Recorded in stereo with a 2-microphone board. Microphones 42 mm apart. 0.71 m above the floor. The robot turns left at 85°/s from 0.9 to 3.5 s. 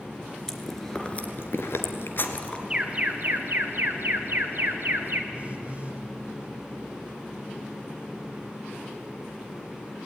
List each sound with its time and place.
0.5 s chewing: 10° left (ahead or behind), 1.6 m; by 2.6 s 20° left (ahead or behind), 1.6 m
2.7 s an alarm: 25° right, 1.9 m; by 5.2 s 90° right, 1.9 m
5.3 s a phone buzzing: 35° right (ahead or behind), 2.5 m